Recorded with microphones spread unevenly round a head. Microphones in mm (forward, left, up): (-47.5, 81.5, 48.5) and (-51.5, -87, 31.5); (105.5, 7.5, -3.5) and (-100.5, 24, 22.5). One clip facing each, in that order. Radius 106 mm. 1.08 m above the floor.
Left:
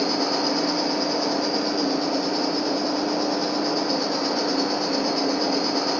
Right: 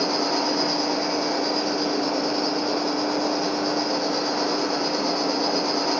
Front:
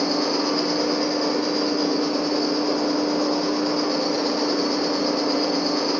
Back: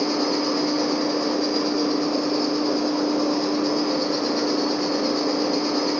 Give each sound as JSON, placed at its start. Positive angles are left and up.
{"t": 0.0, "sound": "an insect", "azimuth_deg": 135, "distance_m": 1.5}